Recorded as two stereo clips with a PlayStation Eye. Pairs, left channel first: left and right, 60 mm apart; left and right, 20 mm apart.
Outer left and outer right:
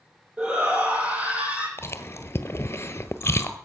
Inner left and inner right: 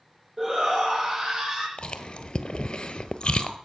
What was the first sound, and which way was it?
A shout, 25° right (ahead or behind).